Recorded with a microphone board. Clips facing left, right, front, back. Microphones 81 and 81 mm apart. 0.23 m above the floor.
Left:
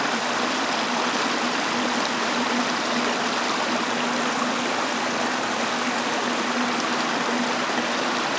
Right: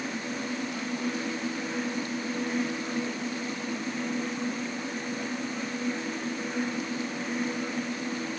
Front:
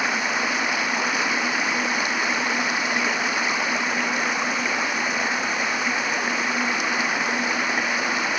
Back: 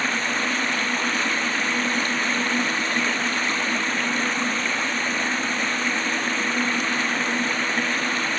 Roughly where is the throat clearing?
No throat clearing in this recording.